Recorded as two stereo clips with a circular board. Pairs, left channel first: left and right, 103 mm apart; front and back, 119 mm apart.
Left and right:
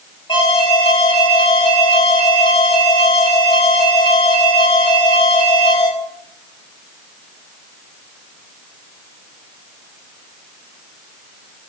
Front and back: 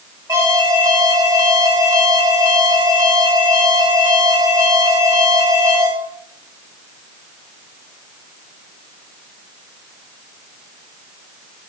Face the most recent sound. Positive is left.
turn(degrees=115)